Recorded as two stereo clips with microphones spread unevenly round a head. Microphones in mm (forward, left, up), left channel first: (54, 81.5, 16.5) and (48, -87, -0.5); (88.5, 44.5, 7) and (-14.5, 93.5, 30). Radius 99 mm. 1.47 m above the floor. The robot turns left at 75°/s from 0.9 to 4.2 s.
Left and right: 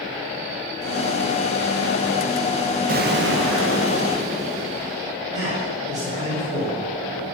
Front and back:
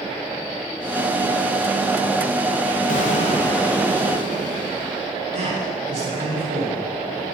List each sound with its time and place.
2.9 s an explosion: 55° right, 1.7 m; by 5.2 s 150° right, 1.7 m
5.3 s a man speaking: 165° right, 8 m